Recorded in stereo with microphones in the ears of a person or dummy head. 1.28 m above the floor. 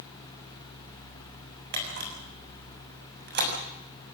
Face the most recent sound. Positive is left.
turn(degrees=-55)  # may be behind; listen again after turning